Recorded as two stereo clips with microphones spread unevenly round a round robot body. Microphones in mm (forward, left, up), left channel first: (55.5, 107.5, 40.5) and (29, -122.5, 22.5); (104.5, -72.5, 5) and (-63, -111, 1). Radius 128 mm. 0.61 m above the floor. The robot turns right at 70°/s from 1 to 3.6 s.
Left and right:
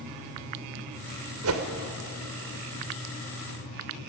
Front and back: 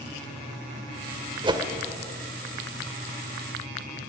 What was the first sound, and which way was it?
A whoosh, 110° right.